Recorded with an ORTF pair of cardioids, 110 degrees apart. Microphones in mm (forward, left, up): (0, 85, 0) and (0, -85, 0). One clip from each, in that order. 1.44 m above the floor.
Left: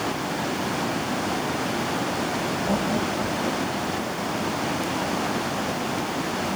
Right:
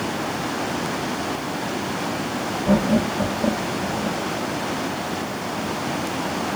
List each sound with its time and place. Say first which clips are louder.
2.7 s laughter: right 7 dB; 40° right; by 4.2 s 60° right